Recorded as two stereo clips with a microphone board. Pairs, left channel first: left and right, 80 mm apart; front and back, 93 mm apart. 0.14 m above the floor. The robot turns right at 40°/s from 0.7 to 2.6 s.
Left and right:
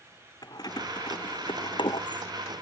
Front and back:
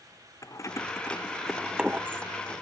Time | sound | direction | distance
0.4 | keys jangling | 55° left | ?